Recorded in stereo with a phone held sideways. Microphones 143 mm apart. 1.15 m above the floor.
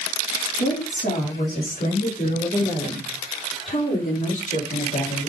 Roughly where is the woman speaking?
Left.